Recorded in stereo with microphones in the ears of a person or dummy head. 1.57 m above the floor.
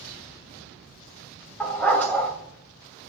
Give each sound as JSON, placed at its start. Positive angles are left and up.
{"t": 1.6, "sound": "a dog barking", "side_deg": 5, "distance_m": 2.5}